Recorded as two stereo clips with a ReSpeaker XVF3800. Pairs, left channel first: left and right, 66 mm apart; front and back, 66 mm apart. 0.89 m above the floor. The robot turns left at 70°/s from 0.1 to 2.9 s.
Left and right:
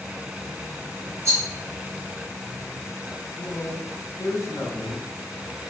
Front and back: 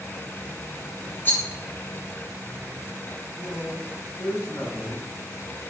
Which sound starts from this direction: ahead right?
A rattle, at 1.2 s.